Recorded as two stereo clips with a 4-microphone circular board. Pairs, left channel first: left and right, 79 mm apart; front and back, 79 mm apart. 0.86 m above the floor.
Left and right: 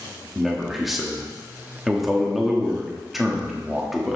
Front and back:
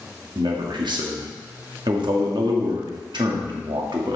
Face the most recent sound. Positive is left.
turn(degrees=180)